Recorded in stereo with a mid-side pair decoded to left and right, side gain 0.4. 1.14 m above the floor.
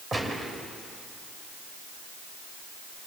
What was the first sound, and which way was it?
A gunshot, 35° right.